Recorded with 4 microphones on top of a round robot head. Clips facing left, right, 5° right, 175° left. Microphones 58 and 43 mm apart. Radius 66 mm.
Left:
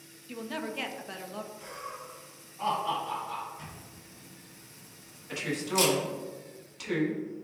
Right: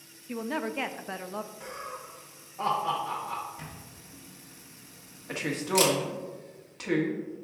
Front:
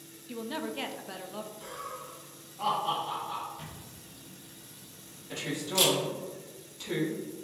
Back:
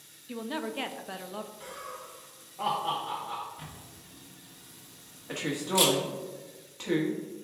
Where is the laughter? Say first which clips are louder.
Right 2 dB, front 1 dB; 120° right, 1.3 m.